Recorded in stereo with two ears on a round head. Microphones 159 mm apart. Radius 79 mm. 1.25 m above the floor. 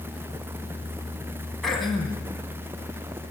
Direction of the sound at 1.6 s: Centre (ahead or behind).